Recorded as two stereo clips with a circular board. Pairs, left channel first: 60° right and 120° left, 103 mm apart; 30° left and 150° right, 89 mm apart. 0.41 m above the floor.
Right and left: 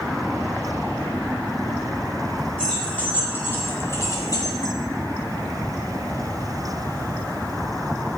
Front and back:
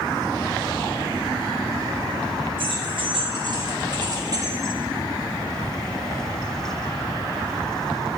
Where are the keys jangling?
140° right, 3.5 m; by 4.8 s 100° right, 1.8 m.